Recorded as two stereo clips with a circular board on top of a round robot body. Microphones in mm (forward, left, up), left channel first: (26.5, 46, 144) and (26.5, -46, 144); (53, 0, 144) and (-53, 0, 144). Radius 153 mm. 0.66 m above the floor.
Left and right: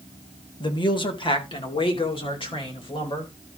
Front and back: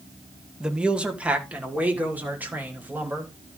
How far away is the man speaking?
About 1.6 m.